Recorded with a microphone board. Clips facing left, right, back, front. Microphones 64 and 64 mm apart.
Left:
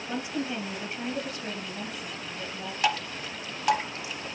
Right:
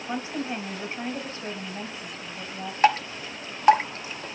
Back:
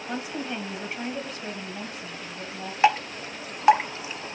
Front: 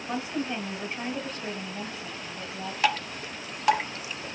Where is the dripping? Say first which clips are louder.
Right 7 dB, back 6 dB; 125° right, 0.7 m.